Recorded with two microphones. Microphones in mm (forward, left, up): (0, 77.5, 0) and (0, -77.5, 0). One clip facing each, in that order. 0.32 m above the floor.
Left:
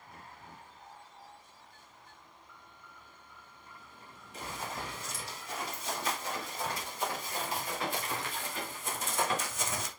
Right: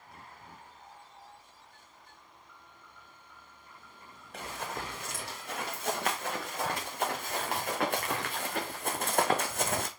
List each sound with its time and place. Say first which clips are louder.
4.3 s running footsteps: right 2 dB; 65° right (ahead or behind), 4.5 m; by 9.9 s 60° right (ahead or behind), 1.4 m